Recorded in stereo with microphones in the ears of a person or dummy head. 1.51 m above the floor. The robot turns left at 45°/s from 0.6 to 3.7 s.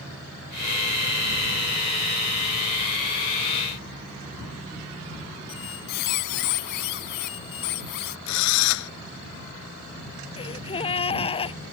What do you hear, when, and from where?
5.5 s a squeak: 55° left (ahead or behind)
8.3 s a drill: 75° left (ahead or behind)
10.4 s a gasp: 30° left (ahead or behind)